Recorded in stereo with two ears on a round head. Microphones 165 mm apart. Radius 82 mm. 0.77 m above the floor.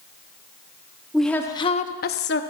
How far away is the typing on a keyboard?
I don't hear typing on a keyboard.